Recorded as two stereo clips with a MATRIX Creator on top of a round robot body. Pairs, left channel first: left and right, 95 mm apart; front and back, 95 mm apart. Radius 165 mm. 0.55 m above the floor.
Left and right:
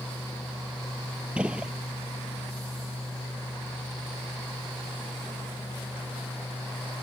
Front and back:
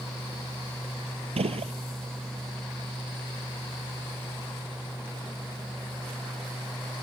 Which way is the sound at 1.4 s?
170° right.